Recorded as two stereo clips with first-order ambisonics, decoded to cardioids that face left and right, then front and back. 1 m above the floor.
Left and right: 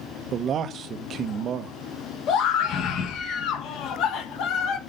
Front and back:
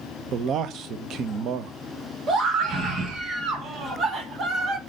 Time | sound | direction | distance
0.3 | a man speaking | 140° right | 0.7 m
2.3 | a scream | 125° left | 1.4 m